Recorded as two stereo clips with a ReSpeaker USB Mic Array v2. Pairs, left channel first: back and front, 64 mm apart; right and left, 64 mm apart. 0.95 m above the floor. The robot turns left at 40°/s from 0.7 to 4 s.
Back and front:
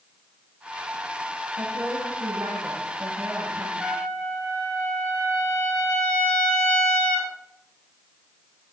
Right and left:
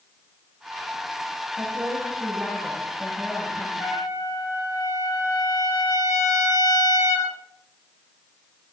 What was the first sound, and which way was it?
A woman speaking, 30° left.